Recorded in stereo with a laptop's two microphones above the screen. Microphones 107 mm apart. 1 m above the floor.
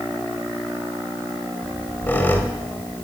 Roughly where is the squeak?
Centre.